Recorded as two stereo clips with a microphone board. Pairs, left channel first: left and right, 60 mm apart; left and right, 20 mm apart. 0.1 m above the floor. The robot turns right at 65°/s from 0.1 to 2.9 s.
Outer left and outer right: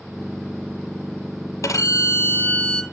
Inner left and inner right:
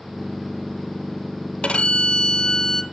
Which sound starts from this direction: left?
A violin, at 1.6 s.